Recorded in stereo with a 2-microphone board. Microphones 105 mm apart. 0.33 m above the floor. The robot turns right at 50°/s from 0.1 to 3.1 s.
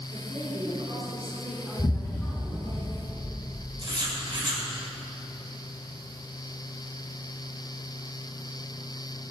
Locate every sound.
0.1 s a woman speaking: 75° right, 3 m; by 2.8 s 55° left, 3 m
1.8 s an explosion: 85° left, 0.7 m; by 3.7 s 150° left, 0.7 m
3.8 s writing: 45° right (ahead or behind), 2.5 m